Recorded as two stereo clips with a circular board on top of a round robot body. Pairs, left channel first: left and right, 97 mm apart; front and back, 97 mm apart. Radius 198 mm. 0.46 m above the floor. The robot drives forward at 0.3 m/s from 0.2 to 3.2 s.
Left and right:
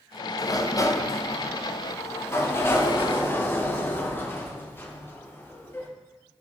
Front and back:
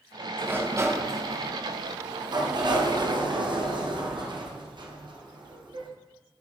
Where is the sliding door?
120° left, 0.9 m; by 5.9 s 155° left, 1.4 m.